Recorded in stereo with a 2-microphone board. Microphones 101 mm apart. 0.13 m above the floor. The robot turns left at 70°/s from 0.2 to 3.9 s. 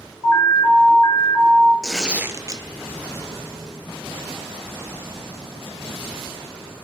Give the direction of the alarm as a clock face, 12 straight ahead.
7 o'clock.